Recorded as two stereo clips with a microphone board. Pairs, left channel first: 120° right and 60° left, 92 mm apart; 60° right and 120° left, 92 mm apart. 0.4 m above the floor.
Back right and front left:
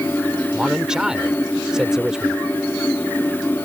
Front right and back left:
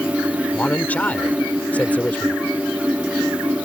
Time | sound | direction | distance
0.5 | a man speaking | 10° right | ?